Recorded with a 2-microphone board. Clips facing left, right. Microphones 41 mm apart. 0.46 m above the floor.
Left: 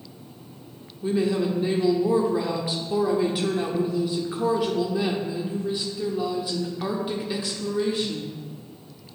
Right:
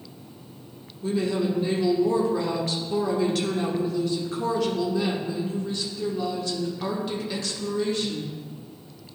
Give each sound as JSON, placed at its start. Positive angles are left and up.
{"t": 1.0, "sound": "a woman speaking", "side_deg": 15, "distance_m": 1.0}